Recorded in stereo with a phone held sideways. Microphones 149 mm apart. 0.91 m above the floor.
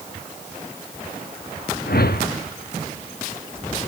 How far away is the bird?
I don't hear a bird.